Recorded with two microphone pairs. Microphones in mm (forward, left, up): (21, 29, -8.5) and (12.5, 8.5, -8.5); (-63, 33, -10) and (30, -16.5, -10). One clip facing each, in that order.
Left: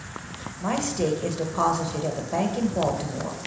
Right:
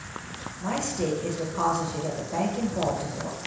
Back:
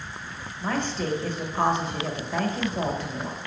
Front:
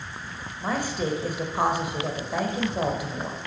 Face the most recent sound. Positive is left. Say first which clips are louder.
# left 3 dB, even
turn(degrees=45)